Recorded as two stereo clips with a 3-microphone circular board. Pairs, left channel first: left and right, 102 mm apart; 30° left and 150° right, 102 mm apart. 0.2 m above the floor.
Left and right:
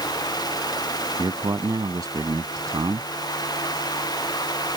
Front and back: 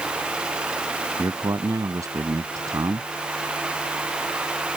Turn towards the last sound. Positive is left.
turn(degrees=-115)